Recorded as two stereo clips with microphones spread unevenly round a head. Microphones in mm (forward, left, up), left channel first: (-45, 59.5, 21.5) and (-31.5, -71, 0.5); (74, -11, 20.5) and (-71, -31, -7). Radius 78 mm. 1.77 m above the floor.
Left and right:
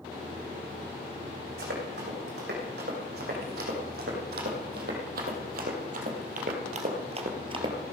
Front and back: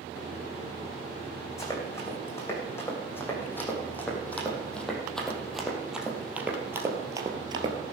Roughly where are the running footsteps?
Ahead right.